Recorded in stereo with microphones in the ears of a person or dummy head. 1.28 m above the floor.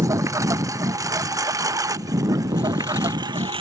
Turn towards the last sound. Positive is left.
turn(degrees=-25)  # may be behind; listen again after turning